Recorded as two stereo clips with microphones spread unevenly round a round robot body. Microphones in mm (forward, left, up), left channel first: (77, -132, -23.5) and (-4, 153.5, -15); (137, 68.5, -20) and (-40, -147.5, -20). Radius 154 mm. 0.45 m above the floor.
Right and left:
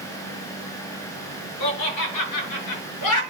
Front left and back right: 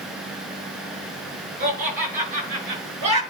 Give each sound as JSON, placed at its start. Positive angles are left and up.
{"t": 1.6, "sound": "laughter", "azimuth_deg": -70, "distance_m": 6.0}